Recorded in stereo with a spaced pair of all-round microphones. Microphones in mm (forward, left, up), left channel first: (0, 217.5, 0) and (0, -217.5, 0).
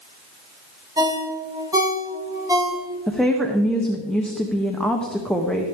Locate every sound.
1.0 s a ringtone: 10° right (ahead or behind), 1.2 m
3.1 s a woman speaking: centre (ahead or behind), 0.9 m